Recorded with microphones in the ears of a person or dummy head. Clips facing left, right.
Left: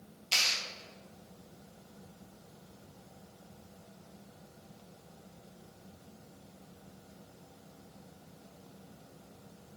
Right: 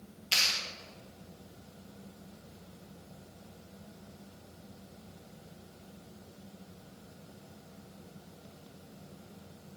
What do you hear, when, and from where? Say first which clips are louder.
0.3 s a clap: even; 5° right (ahead or behind), 1.7 m